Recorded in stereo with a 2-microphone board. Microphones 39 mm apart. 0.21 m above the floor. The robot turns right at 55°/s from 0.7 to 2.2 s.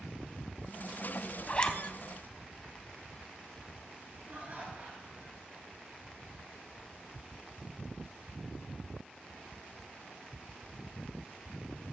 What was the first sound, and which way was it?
A zipper, 30° left (ahead or behind).